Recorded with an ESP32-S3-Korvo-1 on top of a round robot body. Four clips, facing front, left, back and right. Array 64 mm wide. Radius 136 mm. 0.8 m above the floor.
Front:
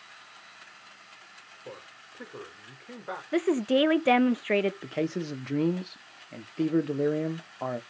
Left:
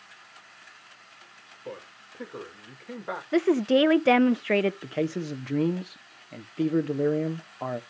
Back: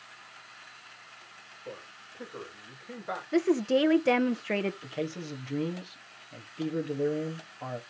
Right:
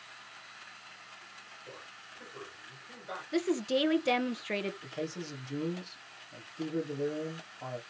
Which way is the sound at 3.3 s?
75° left.